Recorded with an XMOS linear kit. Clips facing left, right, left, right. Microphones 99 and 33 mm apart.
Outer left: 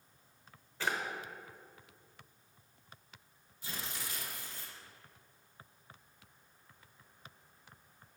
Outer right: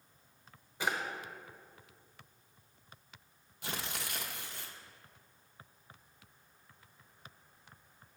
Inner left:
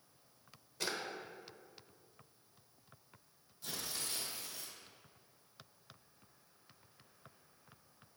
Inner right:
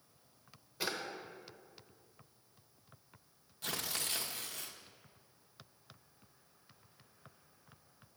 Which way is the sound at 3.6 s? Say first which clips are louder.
Outer right 3 dB, inner right 4 dB; 65° right (ahead or behind).